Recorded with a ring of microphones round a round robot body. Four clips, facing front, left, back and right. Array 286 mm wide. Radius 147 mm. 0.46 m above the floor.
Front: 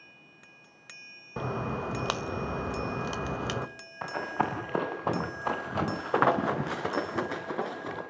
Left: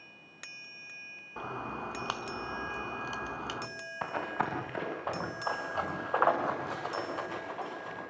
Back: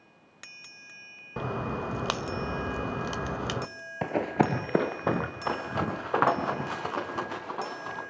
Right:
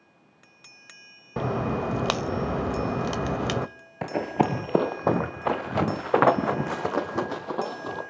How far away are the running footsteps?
About 3 m.